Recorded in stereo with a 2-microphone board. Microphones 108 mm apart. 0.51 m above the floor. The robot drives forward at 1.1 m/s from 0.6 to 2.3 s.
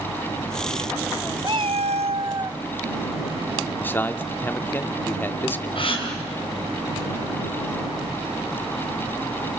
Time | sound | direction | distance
1.4 | a cat meowing | 40° right (ahead or behind) | 0.7 m
3.8 | a man speaking | 20° left (ahead or behind) | 1.2 m
5.8 | a gasp | 55° left (ahead or behind) | 4.5 m